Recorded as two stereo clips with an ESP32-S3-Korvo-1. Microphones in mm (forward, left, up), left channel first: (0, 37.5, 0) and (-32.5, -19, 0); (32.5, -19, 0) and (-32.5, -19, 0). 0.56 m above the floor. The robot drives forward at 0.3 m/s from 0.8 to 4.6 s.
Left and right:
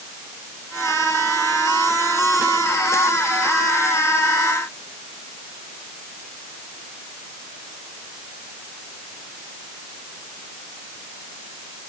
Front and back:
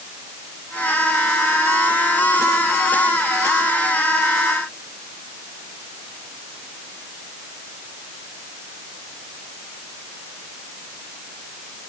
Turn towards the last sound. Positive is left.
No sound to turn to.